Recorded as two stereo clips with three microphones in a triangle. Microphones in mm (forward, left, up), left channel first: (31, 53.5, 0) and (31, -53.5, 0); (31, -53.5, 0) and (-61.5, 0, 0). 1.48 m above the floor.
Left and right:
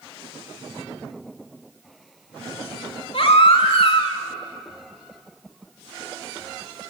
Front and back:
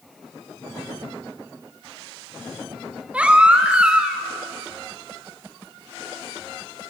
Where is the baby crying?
70° left, 2 m.